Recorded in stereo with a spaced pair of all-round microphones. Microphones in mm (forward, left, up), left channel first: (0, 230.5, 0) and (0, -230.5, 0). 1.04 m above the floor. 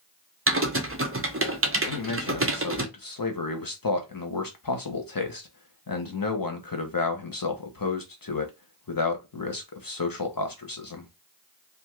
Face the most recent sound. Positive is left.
turn(degrees=45)  # may be behind; listen again after turning